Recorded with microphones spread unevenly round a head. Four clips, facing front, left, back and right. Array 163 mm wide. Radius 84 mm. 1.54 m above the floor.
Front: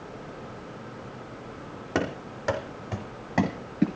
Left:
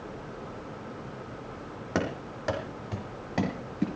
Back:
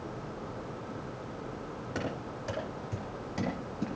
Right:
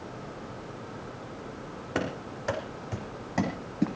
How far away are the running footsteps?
About 3.5 m.